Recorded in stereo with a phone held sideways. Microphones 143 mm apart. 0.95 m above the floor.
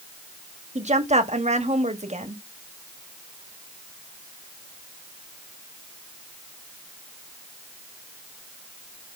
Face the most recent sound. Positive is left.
turn(degrees=-50)  # may be behind; listen again after turning